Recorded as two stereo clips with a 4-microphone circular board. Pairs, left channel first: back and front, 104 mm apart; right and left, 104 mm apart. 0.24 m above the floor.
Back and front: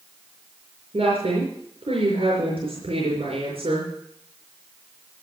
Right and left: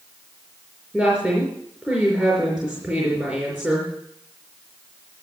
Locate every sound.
0.9 s a woman speaking: 5° left, 4.5 m